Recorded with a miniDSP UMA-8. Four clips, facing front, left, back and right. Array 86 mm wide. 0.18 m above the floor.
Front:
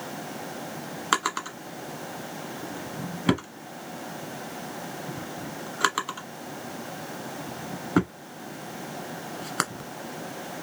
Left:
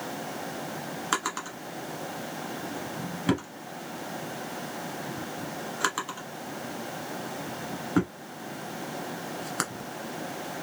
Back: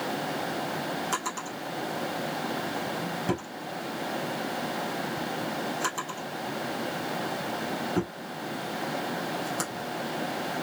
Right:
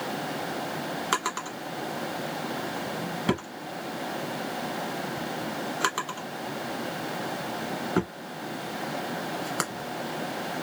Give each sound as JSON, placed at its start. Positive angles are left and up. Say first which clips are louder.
{"t": 1.1, "sound": "a drawer", "louder": "left 1 dB, front 5 dB", "azimuth_deg": 0, "distance_m": 1.3}